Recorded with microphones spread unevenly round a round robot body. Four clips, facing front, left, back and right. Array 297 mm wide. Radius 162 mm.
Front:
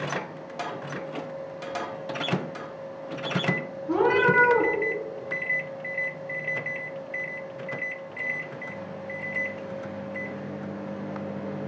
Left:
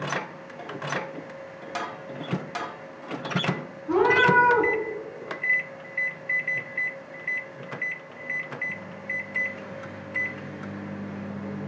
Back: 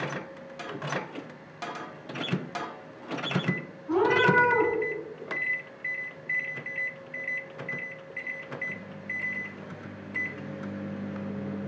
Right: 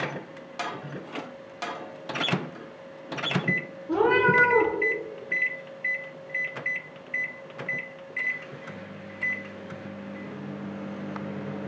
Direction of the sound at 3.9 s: 85° left.